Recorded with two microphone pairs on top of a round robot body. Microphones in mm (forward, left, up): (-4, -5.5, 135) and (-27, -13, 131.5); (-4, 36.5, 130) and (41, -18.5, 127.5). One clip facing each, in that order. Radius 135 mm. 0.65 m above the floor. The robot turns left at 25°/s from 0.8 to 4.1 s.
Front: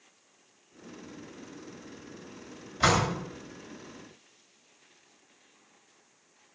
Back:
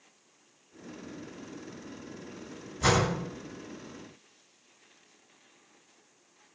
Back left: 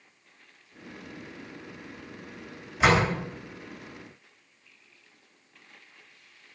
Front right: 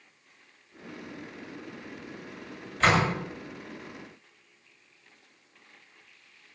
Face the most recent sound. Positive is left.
turn(degrees=20)